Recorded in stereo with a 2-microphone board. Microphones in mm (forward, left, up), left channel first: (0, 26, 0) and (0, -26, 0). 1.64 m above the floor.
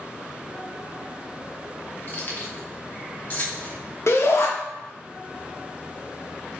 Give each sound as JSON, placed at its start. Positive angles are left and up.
{"t": 2.1, "sound": "keys jangling", "side_deg": 45, "distance_m": 0.9}
{"t": 4.1, "sound": "a shout", "side_deg": 55, "distance_m": 1.0}